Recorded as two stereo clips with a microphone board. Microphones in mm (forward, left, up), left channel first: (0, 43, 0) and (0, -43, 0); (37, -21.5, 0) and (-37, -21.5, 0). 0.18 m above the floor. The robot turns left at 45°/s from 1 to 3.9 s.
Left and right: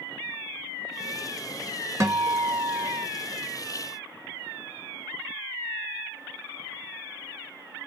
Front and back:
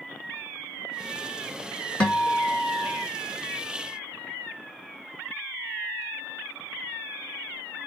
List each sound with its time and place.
2.0 s a guitar: 60° right, 1.2 m; by 3.1 s 110° right, 1.2 m